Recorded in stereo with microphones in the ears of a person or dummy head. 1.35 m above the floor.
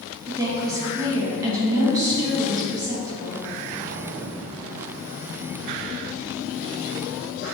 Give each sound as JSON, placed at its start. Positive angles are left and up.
{"t": 0.3, "sound": "a woman speaking", "side_deg": -25, "distance_m": 1.2}